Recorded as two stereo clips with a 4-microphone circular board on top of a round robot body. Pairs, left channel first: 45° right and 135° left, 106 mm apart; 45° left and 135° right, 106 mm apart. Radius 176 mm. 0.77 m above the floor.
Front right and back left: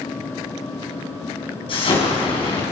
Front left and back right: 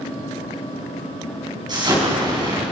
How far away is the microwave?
No microwave in this recording.